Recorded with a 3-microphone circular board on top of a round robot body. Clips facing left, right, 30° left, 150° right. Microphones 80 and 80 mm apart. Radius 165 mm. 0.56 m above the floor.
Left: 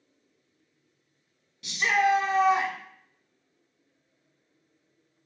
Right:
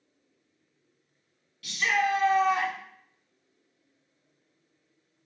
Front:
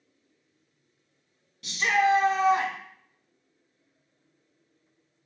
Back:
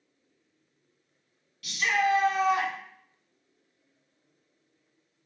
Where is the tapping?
No tapping in this recording.